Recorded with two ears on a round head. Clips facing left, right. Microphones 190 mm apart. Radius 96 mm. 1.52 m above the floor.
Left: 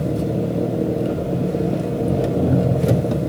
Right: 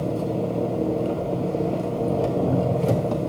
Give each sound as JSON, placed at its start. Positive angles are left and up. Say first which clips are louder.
{"t": 0.0, "sound": "an engine running", "louder": "left 3 dB", "side_deg": 15, "distance_m": 0.8}